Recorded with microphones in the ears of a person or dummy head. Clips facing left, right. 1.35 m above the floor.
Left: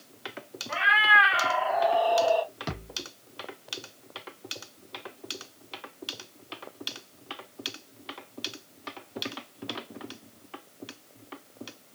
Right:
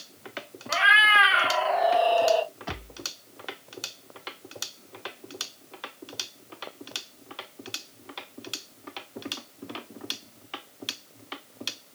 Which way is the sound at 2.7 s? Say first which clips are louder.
Left 1 dB; 60° left (ahead or behind).